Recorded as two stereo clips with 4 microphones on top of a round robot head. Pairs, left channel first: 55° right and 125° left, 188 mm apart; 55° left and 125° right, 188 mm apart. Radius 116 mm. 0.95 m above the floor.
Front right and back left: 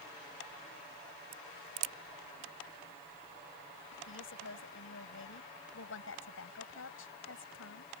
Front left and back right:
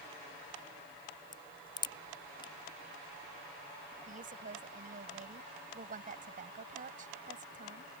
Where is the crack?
125° left.